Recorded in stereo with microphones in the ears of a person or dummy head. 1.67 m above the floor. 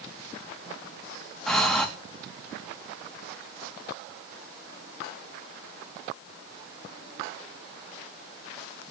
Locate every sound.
1.5 s breathing: 10° left (ahead or behind), 3.5 m